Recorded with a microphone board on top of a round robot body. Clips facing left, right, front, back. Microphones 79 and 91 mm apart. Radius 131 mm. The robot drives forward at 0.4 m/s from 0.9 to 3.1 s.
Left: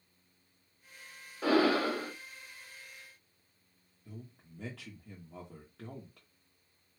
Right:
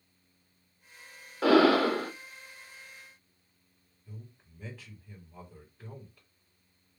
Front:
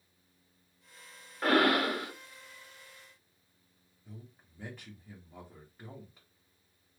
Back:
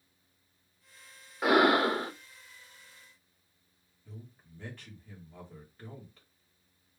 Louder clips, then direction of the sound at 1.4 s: Right 6 dB, back 3 dB; 100° right.